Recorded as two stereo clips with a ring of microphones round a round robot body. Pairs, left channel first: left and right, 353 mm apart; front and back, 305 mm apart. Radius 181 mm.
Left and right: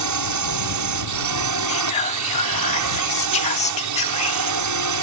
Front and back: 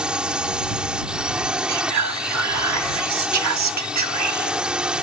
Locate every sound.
0.0 s a drone: 95° right
1.7 s whispering: 160° left